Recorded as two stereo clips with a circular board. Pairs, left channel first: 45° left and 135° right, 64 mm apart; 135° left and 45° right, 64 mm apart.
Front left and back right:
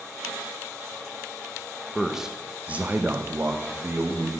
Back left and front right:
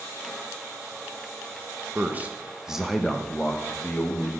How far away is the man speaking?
About 0.9 m.